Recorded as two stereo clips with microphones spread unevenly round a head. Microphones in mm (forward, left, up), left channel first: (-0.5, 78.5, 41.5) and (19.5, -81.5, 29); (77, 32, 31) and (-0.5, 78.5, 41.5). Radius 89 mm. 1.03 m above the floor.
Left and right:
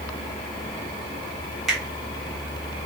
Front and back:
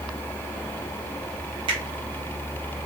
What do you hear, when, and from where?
1.7 s a finger snap: 170° right, 1.5 m